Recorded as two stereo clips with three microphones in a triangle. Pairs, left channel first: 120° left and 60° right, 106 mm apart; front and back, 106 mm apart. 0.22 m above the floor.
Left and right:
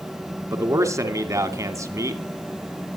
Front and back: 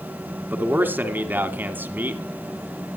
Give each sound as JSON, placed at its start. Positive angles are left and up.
{"t": 0.5, "sound": "a man speaking", "azimuth_deg": -115, "distance_m": 1.9}